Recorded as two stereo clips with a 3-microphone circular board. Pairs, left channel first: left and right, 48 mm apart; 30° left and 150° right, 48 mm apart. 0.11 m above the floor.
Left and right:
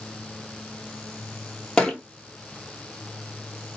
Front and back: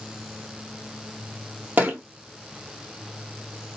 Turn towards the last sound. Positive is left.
turn(degrees=160)